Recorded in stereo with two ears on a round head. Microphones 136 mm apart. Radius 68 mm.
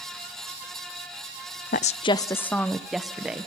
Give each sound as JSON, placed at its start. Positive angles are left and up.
{"t": 1.7, "sound": "a woman speaking", "side_deg": 55, "distance_m": 0.5}